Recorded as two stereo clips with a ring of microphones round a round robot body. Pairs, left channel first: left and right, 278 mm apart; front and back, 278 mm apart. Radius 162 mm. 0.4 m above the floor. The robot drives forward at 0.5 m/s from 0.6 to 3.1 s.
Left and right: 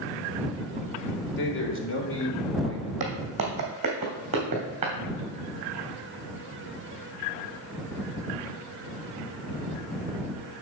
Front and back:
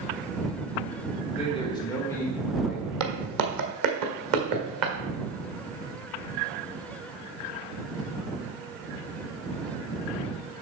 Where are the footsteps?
155° right, 1.2 m; by 4.9 s 160° right, 2.5 m.